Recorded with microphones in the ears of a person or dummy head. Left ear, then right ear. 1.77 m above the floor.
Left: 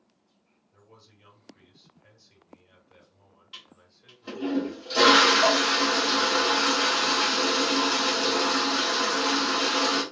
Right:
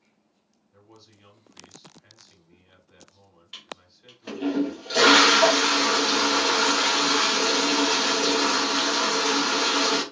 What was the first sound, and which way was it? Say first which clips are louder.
A man speaking: right 3 dB; 30° right (ahead or behind).